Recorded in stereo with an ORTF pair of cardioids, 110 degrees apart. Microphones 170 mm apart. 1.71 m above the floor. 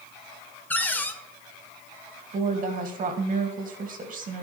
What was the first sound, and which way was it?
A cupboard door, 10° left.